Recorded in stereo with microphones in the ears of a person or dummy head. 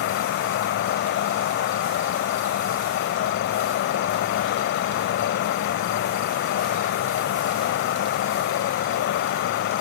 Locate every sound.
0.0 s an insect: 55° left (ahead or behind)